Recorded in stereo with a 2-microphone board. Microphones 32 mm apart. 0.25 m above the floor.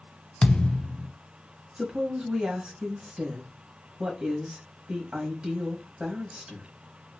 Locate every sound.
0.4 s a thud: 30° left (ahead or behind), 0.5 m
1.8 s a woman speaking: 35° right (ahead or behind), 1.3 m